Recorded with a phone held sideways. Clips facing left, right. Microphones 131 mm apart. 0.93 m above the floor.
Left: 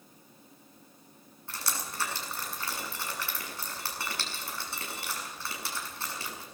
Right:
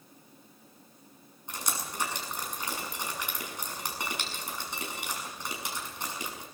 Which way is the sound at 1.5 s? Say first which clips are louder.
Right 1 dB; 20° right (ahead or behind).